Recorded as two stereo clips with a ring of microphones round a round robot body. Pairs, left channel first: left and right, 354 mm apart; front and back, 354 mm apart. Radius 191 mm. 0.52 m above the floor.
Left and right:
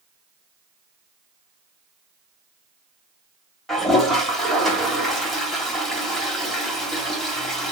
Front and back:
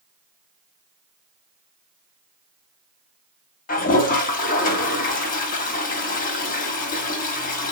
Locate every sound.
3.7 s a toilet flushing: straight ahead, 1.4 m